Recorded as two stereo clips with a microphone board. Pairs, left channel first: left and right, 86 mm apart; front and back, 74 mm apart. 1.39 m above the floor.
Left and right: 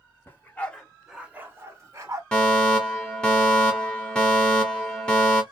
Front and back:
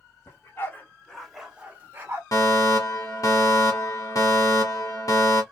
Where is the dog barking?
35° left, 1.3 m; by 2.2 s 125° right, 1.5 m.